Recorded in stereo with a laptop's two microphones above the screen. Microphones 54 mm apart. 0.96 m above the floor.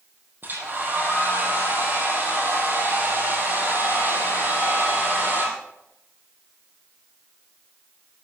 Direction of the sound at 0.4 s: 40° right (ahead or behind).